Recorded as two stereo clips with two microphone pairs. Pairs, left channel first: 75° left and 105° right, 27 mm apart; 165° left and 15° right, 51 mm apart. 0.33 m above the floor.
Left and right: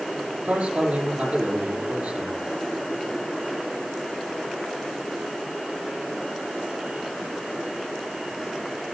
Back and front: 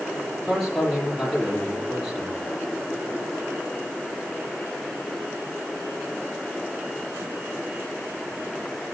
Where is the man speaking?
100° right, 8 m.